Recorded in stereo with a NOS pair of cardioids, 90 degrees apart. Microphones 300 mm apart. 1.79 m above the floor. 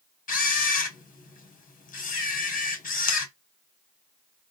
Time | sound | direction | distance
0.3 | a camera shutter | 25° left | 0.8 m